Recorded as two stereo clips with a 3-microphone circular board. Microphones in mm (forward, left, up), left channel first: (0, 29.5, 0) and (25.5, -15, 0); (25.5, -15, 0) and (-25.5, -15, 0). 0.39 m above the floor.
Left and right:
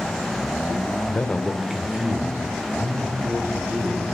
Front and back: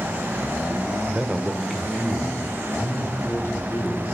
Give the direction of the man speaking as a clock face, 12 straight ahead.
8 o'clock.